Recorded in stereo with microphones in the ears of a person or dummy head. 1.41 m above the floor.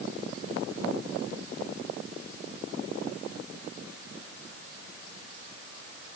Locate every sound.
Only background noise.